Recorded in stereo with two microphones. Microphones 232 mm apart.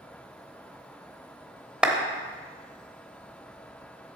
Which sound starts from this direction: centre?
A clap, at 1.8 s.